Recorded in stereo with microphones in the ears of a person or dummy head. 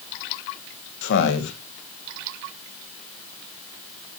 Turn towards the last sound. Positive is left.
turn(degrees=65)  # may be behind; listen again after turning